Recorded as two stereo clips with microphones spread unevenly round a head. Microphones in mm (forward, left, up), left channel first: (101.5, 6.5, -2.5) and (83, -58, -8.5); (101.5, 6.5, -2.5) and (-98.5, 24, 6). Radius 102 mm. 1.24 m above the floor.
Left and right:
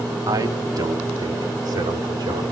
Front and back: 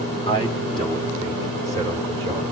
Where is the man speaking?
70° right, 2 m; by 2.4 s 85° right, 3.5 m.